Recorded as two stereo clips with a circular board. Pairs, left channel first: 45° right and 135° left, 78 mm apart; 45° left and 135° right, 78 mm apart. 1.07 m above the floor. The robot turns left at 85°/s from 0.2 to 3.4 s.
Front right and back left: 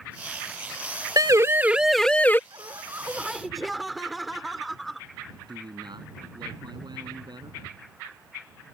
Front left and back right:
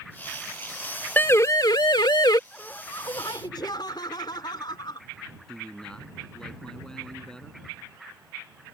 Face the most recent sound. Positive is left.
turn(degrees=125)